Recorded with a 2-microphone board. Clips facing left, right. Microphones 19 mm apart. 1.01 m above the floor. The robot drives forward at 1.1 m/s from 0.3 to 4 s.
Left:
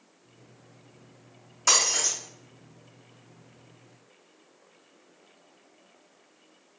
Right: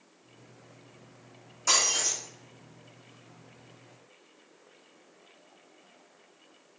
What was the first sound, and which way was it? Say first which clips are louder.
Breaking glass: left 2 dB; 35° left (ahead or behind).